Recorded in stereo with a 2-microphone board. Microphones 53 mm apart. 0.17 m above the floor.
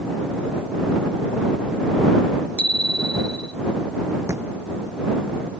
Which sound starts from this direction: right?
A thud, at 4.3 s.